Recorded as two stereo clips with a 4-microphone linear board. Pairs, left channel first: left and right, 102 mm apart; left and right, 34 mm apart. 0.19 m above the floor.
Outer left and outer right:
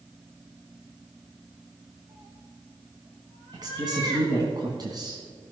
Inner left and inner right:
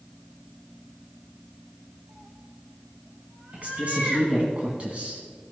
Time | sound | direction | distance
2.1 | a cat meowing | 80° right | 3 m
3.5 | a woman speaking | 40° right (ahead or behind) | 1.8 m